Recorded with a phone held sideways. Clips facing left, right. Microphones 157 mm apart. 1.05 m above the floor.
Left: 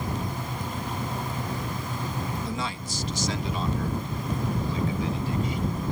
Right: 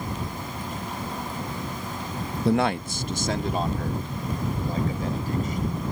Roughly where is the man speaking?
Right.